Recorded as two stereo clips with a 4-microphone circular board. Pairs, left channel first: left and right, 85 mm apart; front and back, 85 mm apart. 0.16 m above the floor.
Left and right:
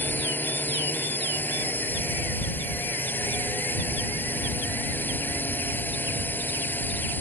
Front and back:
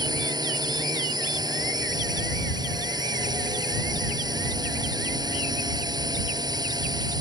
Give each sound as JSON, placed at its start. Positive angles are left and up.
{"t": 0.0, "sound": "a drone", "azimuth_deg": 155}